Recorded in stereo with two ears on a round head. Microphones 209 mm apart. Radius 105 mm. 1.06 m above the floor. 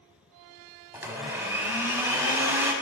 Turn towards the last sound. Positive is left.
turn(degrees=-10)  # may be behind; listen again after turning